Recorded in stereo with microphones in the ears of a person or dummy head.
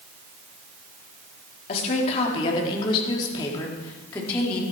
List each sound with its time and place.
1.7 s a woman speaking: 55° left (ahead or behind), 3.5 m; by 4.6 s 25° left (ahead or behind), 3.5 m